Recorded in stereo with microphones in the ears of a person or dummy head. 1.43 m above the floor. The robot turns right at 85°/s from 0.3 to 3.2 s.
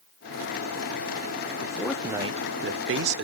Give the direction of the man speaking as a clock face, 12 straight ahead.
7 o'clock.